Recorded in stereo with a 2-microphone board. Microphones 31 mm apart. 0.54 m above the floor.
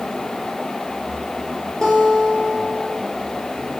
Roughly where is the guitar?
Left.